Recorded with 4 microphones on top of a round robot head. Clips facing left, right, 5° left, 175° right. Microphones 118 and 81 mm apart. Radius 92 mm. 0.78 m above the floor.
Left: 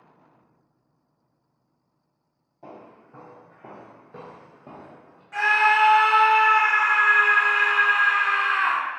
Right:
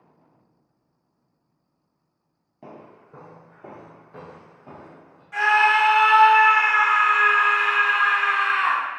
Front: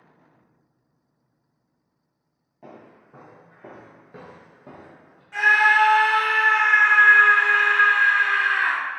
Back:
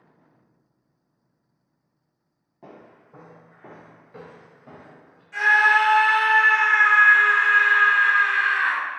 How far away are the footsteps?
About 0.9 m.